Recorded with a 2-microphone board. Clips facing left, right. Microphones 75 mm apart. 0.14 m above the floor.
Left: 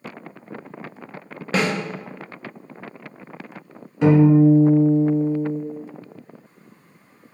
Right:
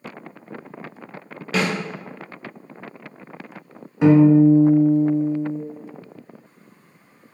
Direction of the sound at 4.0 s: 15° right (ahead or behind).